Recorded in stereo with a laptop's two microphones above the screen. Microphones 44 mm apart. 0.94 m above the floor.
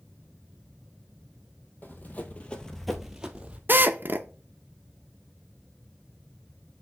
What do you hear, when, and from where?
1.8 s running footsteps: 45° left (ahead or behind), 1.4 m; by 3.6 s 25° right (ahead or behind), 1.2 m
3.7 s a drill: 50° right (ahead or behind), 0.7 m